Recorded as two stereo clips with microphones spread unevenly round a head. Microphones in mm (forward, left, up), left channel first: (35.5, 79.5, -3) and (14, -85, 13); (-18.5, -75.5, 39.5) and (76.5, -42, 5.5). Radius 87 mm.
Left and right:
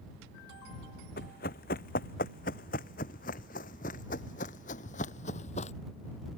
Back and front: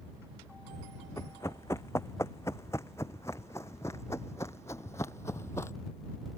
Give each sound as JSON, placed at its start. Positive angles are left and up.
{"t": 1.2, "sound": "running footsteps", "azimuth_deg": 125}